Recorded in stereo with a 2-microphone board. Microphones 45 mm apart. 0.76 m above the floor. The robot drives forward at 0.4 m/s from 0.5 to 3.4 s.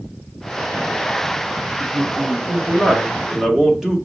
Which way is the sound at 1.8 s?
15° right (ahead or behind).